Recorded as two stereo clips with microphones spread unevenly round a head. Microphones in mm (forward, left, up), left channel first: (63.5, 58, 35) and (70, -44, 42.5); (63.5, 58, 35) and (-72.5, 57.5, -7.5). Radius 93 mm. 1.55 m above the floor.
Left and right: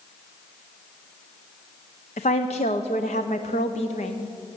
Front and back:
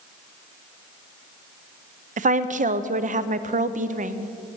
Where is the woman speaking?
140° left, 0.6 m.